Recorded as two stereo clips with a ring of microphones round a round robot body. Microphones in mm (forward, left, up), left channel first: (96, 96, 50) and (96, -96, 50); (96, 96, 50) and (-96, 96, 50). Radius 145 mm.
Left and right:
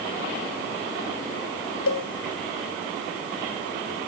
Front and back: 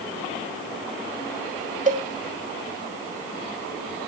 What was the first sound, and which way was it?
A cowbell, 130° left.